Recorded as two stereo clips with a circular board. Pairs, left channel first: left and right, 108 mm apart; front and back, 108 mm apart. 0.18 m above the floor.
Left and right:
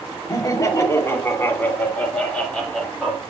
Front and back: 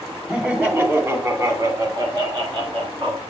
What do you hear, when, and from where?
0.3 s laughter: 105° left, 1.9 m; by 3.2 s straight behind, 2.5 m